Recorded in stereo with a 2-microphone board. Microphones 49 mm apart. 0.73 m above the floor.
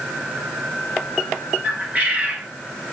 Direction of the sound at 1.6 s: 35° right (ahead or behind).